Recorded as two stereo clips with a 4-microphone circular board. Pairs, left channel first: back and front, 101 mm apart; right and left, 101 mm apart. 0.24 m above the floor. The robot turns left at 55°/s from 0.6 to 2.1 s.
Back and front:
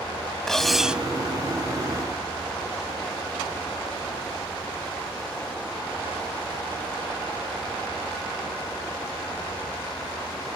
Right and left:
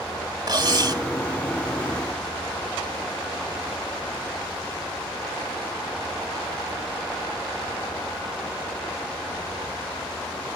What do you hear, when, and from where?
0.5 s cutlery clinking: 95° left; by 1.0 s 70° left